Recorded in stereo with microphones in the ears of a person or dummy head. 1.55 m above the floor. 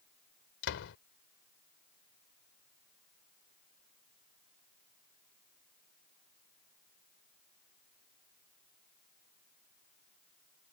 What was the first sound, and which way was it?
A door slam, 65° left (ahead or behind).